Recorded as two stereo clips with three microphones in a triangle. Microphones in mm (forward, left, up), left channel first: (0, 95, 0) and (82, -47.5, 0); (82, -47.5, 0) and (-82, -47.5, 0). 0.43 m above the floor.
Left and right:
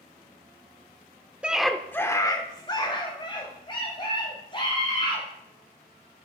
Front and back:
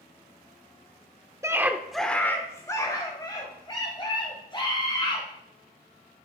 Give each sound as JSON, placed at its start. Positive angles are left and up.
{"t": 1.4, "sound": "a scream", "azimuth_deg": -135, "distance_m": 0.9}